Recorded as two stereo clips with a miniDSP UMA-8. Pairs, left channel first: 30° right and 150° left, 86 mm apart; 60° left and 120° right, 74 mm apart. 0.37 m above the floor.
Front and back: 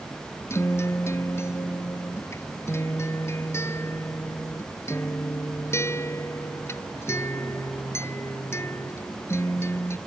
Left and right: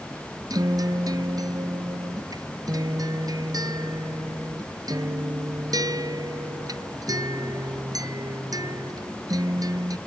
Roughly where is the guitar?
Right.